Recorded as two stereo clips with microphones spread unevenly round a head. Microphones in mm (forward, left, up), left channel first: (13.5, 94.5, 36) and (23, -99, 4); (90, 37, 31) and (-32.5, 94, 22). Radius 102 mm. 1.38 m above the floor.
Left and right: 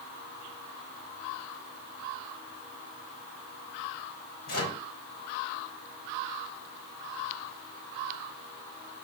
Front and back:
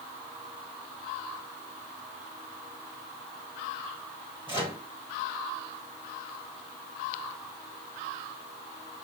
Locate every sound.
4.5 s a microwave: 100° left, 4 m